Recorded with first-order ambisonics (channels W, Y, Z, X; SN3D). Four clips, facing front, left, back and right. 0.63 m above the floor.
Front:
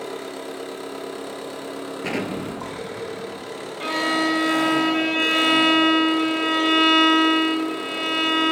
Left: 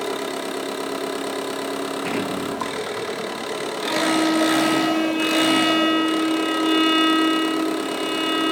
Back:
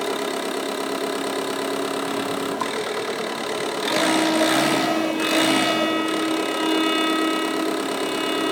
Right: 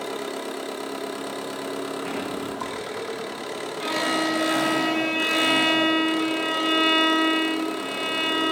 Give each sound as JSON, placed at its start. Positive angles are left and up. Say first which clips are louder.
{"t": 0.0, "sound": "an engine running", "louder": "left 4 dB, back 7 dB", "azimuth_deg": 155, "distance_m": 1.1}
{"t": 2.0, "sound": "an explosion", "louder": "left 5 dB, back 2 dB", "azimuth_deg": 30, "distance_m": 2.0}
{"t": 3.8, "sound": "a violin", "louder": "left 4 dB, back 1 dB", "azimuth_deg": -15, "distance_m": 3.0}